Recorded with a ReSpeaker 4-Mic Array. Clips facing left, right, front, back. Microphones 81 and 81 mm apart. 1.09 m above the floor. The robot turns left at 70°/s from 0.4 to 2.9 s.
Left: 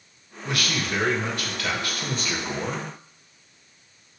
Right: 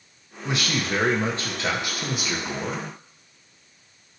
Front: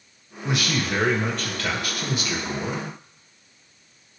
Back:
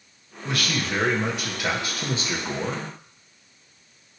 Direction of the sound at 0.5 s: 45° right.